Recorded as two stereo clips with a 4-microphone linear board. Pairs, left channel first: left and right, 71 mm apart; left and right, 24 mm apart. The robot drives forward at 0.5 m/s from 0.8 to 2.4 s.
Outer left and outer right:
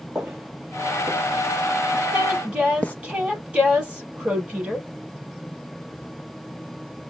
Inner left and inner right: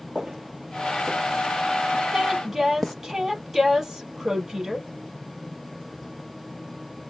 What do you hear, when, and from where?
0.1 s footsteps: 20° right (ahead or behind), 1.1 m; by 2.9 s 25° left (ahead or behind), 0.5 m
2.1 s a woman speaking: 15° right (ahead or behind), 3.5 m